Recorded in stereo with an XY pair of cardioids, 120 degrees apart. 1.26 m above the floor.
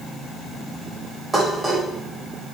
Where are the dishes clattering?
25° right, 4 m.